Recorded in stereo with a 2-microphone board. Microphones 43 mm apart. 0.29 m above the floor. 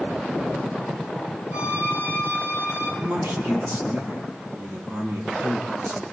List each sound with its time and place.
1.5 s a violin: 85° right, 8 m
3.0 s a man speaking: 70° right (ahead or behind), 10 m